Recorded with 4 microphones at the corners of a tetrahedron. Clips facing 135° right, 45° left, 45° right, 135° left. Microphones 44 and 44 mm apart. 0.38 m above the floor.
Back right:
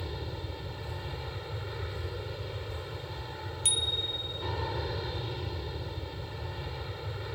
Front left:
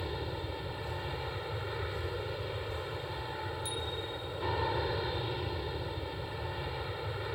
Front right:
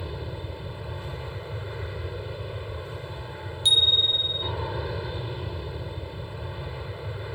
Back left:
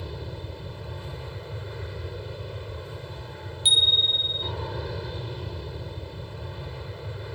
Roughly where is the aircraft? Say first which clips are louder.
Front left 2 dB, front right 2 dB; ahead.